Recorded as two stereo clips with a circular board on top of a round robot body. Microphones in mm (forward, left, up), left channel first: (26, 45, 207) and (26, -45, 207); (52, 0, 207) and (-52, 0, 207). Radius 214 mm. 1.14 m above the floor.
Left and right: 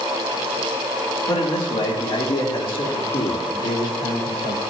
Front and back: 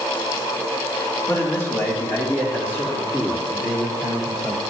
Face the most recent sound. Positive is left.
turn(degrees=80)